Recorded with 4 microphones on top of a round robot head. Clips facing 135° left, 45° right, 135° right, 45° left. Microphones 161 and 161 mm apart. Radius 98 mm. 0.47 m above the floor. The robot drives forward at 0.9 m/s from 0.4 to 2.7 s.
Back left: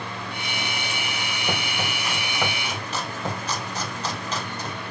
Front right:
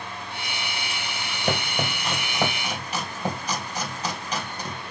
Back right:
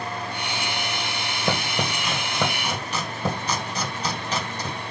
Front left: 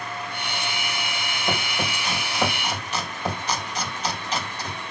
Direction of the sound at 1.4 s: 105° right.